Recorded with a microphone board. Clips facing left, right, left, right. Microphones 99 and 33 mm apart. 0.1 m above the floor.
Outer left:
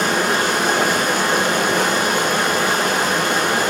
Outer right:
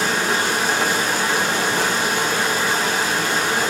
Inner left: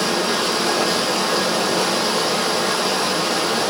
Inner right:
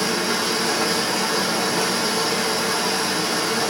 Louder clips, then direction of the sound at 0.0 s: Outer left 3 dB, inner left 2 dB; 60° left (ahead or behind).